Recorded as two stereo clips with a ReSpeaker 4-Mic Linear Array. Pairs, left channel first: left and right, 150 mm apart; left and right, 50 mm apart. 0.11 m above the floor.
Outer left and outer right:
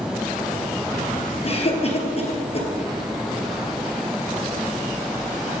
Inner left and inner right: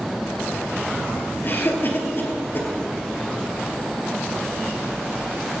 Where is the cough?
45° left (ahead or behind), 2.5 m.